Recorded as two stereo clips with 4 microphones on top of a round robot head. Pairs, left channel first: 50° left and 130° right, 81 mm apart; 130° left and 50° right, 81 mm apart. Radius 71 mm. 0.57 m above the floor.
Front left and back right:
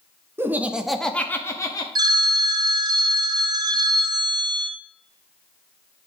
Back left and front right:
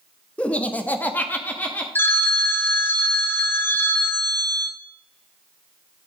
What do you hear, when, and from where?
0.4 s laughter: 165° right, 0.9 m; by 1.9 s 70° left, 1.1 m
1.9 s a phone ringing: 165° right, 0.7 m